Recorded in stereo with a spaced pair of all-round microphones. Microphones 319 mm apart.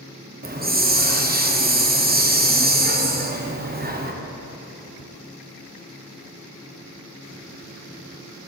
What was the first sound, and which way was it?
A hiss, 30° right (ahead or behind).